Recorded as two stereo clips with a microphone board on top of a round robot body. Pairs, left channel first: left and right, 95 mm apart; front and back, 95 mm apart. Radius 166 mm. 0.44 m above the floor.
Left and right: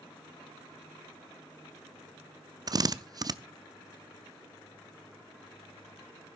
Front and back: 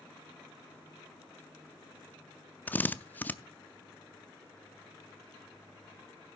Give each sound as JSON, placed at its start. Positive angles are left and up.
{"t": 2.7, "sound": "a drill", "azimuth_deg": -65, "distance_m": 0.7}